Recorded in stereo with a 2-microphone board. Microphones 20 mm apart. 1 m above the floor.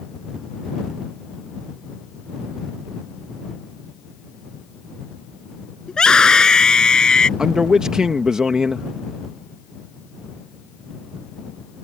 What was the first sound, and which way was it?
A scream, 40° left (ahead or behind).